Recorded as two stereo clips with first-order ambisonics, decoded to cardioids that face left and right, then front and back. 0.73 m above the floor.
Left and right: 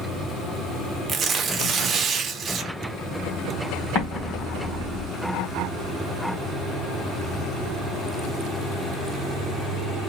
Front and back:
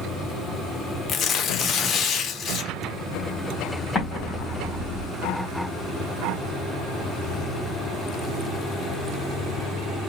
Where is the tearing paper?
40° right, 0.6 m.